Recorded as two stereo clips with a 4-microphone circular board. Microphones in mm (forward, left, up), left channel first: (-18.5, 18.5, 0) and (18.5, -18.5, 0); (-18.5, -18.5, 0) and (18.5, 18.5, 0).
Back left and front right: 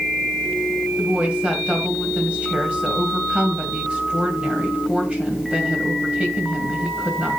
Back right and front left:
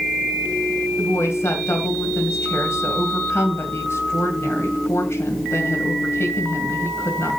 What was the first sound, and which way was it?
A woman speaking, 110° right.